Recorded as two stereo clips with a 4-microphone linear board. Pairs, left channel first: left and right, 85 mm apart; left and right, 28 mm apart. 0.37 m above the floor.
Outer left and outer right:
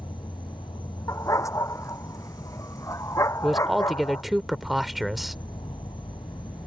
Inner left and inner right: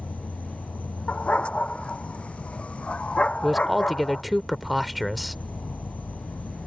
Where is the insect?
75° left (ahead or behind).